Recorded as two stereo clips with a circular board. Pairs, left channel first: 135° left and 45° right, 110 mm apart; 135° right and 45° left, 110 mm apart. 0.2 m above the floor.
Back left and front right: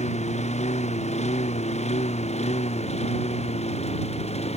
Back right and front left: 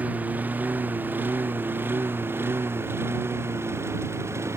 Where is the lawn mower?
120° left; by 4.6 s 110° left.